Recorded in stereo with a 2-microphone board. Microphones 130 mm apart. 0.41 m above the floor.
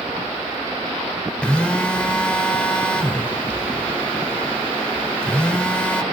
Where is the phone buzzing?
10° left (ahead or behind), 1.7 m.